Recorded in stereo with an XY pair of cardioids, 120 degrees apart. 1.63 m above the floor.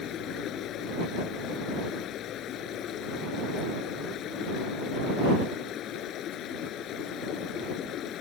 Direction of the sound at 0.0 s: 65° left.